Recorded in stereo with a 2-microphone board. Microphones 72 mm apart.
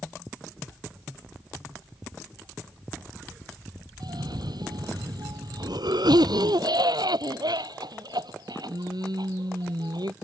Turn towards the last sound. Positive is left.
turn(degrees=-85)